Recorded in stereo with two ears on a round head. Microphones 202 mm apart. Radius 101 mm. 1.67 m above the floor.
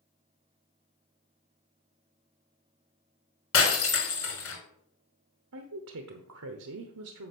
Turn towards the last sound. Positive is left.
turn(degrees=-75)  # may be behind; listen again after turning